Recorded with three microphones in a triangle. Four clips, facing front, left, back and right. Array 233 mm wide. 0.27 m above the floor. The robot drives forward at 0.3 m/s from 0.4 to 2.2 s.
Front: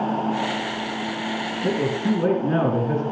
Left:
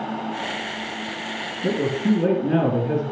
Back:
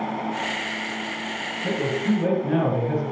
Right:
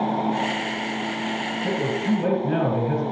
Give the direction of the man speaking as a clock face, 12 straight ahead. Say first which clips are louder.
Left 4 dB, front 1 dB; 10 o'clock.